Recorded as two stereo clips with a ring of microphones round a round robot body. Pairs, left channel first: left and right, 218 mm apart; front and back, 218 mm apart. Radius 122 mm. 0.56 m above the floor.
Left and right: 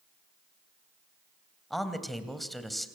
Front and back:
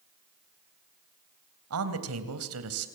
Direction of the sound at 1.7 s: Straight behind.